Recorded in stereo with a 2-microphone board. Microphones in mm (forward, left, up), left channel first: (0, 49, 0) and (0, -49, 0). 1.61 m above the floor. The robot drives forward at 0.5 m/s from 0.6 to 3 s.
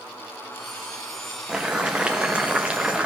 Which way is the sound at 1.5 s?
10° right (ahead or behind).